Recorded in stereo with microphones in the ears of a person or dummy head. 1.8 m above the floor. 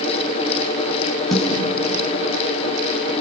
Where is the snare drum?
5° right (ahead or behind), 7 m.